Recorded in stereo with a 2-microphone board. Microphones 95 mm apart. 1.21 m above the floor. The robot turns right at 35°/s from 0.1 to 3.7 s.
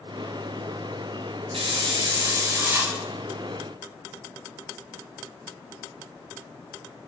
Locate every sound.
1.5 s a hiss: 65° right, 0.7 m; by 3.0 s 15° right, 0.7 m